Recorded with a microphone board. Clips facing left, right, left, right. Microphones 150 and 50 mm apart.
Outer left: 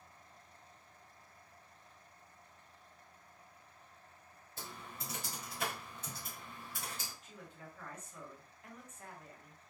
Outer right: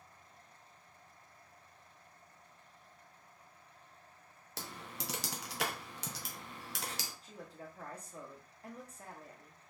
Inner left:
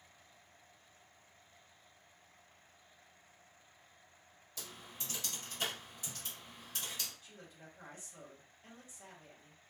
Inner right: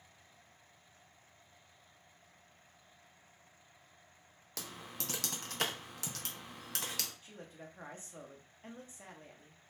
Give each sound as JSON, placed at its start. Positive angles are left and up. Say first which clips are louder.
{"t": 4.6, "sound": "typing on a keyboard", "louder": "outer right 3 dB, inner right 4 dB", "side_deg": -85, "distance_m": 0.5}
{"t": 7.2, "sound": "a man speaking", "louder": "outer right 4 dB, inner right 4 dB", "side_deg": -35, "distance_m": 0.8}